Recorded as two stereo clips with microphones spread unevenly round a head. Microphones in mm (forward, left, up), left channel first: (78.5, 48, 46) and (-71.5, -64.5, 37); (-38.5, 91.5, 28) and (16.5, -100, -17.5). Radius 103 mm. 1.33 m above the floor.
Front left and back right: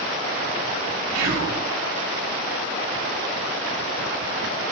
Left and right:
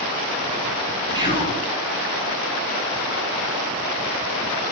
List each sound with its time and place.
1.1 s whispering: 145° right, 1.3 m